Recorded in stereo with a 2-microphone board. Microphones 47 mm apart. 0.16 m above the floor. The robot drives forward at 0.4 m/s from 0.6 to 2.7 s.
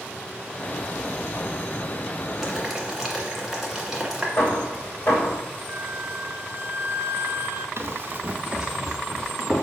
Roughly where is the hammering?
Left.